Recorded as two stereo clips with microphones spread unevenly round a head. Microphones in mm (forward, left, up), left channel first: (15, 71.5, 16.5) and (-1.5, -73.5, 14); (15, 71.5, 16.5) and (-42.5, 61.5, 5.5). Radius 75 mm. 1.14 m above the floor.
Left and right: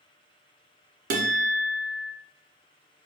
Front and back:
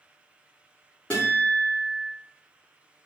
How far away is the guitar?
About 0.6 m.